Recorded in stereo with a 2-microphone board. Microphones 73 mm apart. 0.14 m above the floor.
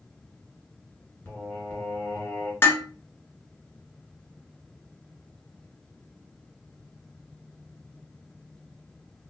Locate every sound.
1.2 s singing: 25° left (ahead or behind), 1.8 m
2.6 s dishes clattering: 30° left (ahead or behind), 1.0 m